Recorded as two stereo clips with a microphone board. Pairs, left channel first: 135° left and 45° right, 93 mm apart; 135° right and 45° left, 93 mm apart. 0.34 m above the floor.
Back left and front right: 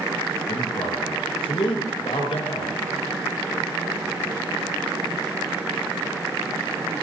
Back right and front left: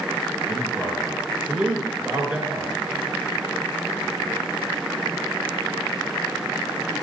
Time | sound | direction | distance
0.5 | a man speaking | 125° left | 4 m